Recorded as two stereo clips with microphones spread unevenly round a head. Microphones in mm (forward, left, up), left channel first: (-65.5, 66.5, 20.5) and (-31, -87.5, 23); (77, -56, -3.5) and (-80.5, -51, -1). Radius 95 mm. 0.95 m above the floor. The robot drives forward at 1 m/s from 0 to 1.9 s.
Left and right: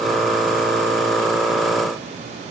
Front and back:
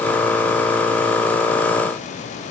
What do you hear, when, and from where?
Only background noise.